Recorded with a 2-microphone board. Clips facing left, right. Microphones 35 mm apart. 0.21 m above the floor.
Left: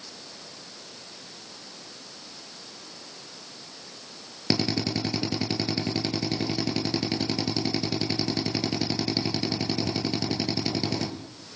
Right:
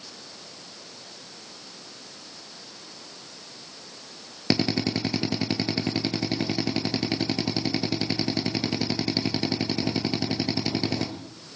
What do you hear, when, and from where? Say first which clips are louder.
4.5 s a drill: right 2 dB; 15° right (ahead or behind), 3 m